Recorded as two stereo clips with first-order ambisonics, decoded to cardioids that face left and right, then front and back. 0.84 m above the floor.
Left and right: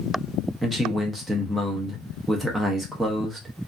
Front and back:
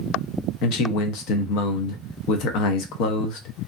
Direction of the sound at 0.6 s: 5° right.